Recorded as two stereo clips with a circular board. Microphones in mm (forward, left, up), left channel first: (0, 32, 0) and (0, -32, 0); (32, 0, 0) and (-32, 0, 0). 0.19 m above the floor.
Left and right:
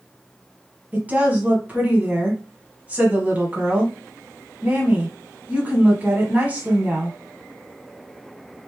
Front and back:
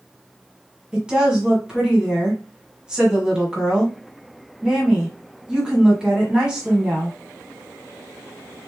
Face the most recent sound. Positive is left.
turn(degrees=-120)